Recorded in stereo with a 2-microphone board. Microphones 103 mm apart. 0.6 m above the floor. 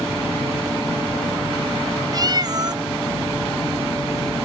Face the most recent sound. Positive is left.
turn(degrees=-35)  # may be behind; listen again after turning